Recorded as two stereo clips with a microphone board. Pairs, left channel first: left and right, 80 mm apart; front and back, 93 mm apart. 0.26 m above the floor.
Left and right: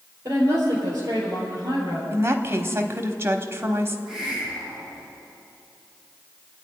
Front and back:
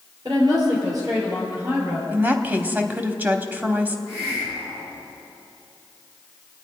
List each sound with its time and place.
0.2 s a woman speaking: 140° right, 5.5 m; by 2.0 s 125° right, 5 m
2.1 s a woman speaking: 120° right, 1.1 m
4.1 s a hiss: 175° right, 6 m